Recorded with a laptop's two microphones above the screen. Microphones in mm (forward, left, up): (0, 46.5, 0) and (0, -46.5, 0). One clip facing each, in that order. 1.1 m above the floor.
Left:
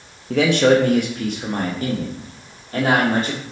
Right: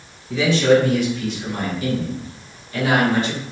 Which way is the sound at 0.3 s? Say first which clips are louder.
Left 1 dB; 60° left (ahead or behind).